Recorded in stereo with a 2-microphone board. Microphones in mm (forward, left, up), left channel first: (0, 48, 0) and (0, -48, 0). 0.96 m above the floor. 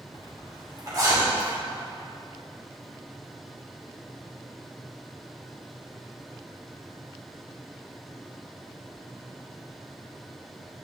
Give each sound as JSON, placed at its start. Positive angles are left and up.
{"t": 0.1, "sound": "a zipper", "side_deg": -40, "distance_m": 2.5}